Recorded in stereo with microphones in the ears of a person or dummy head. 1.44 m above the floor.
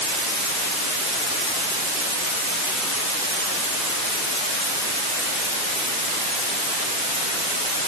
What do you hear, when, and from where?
Only background noise.